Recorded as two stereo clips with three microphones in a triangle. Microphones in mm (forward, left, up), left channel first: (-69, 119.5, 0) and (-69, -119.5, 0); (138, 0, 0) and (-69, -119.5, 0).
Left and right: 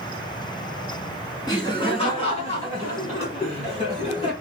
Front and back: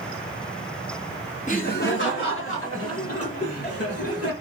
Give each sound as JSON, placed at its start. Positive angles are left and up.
{"t": 1.5, "sound": "laughter", "azimuth_deg": 35, "distance_m": 1.3}